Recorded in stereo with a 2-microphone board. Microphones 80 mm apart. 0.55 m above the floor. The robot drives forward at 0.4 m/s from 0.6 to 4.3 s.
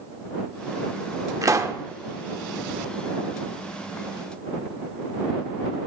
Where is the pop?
45° right (ahead or behind), 0.5 m; by 1.8 s 35° right (ahead or behind), 0.6 m.